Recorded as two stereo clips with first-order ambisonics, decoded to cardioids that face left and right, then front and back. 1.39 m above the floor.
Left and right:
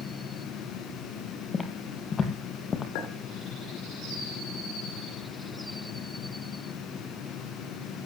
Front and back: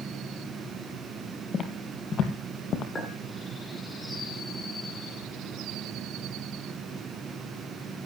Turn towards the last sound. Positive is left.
turn(degrees=75)